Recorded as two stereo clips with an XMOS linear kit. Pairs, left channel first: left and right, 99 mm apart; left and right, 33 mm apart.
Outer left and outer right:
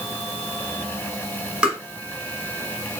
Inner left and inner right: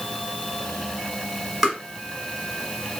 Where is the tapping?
10° right (ahead or behind), 1.7 m.